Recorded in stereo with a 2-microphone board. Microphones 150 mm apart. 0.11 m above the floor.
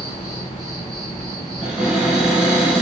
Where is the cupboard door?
5° right (ahead or behind), 1.6 m.